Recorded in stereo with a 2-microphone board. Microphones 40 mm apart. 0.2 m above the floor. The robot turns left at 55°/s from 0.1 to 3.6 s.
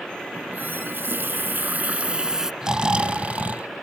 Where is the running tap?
50° right; by 2.5 s 170° right.